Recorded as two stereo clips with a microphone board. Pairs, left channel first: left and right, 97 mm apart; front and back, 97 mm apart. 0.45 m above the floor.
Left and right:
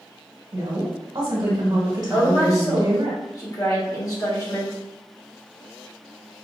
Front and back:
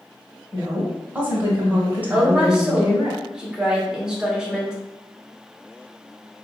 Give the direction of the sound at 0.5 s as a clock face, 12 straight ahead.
4 o'clock.